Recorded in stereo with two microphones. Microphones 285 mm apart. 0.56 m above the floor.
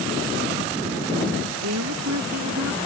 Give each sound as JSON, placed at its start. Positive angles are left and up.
{"t": 1.6, "sound": "a woman speaking", "side_deg": -85}